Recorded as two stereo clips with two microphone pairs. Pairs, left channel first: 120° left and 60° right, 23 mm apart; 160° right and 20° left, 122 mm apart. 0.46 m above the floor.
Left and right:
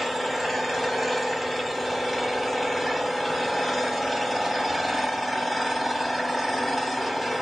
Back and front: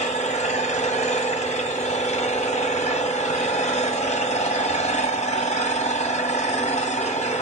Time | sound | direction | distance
0.0 | an engine running | 140° right | 0.9 m